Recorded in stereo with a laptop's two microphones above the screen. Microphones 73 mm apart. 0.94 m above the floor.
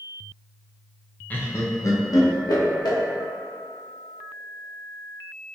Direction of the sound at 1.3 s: 20° left (ahead or behind).